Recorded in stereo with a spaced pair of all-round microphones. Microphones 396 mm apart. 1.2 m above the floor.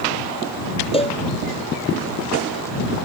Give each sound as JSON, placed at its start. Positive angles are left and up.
{"t": 0.9, "sound": "a cowbell", "side_deg": 15}